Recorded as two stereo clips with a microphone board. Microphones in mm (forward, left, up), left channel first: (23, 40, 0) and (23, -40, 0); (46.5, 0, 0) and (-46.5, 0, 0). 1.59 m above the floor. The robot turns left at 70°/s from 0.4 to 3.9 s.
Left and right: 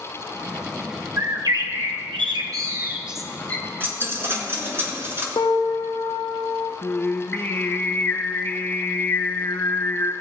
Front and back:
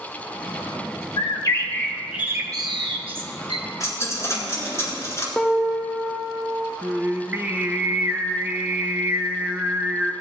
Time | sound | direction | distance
1.2 | a bird | 35° right | 1.0 m
3.8 | a dropped coin | 35° right | 2 m
5.4 | a piano | 85° left | 1.0 m
6.8 | singing | 130° left | 0.8 m